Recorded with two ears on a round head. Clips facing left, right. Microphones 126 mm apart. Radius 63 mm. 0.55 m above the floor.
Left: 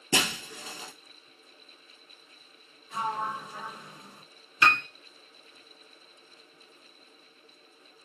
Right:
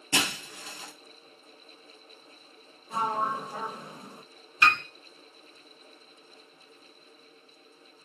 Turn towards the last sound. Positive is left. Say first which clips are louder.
# even
turn(degrees=80)